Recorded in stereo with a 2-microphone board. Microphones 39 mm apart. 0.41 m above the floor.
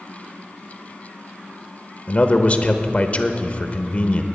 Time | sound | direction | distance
2.1 | a man speaking | 35° left (ahead or behind) | 1.0 m